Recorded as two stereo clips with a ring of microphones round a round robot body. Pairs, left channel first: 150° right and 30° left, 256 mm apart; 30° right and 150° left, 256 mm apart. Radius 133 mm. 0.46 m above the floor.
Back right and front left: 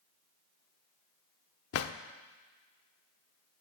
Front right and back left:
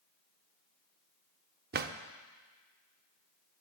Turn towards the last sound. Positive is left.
turn(degrees=-165)